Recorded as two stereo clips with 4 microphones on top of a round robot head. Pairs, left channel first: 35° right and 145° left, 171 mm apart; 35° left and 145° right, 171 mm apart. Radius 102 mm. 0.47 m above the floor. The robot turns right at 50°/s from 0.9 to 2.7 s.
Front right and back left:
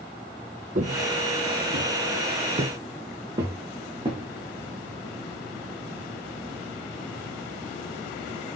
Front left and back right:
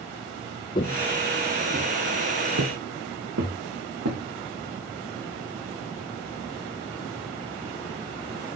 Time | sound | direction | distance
0.8 | footsteps | 95° left | 0.9 m